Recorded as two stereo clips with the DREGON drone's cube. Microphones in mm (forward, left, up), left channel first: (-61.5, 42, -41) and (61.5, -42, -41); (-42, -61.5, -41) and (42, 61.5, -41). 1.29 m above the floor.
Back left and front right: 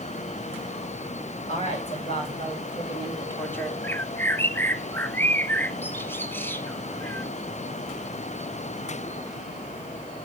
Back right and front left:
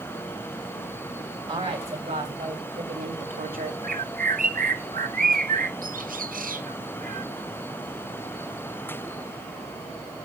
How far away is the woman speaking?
About 5 m.